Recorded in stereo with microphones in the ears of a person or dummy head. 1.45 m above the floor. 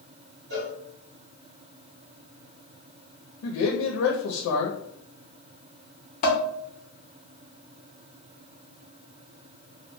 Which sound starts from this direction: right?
A cowbell, at 0.5 s.